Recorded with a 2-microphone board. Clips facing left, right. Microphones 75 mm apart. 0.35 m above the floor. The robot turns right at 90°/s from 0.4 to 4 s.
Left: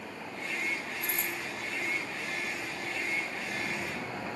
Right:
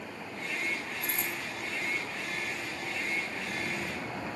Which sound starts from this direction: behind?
A dropped coin, at 1.0 s.